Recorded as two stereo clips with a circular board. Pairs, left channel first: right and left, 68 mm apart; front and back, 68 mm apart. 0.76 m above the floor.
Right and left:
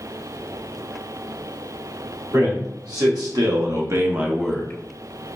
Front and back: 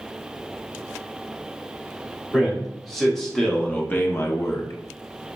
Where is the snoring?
I don't hear snoring.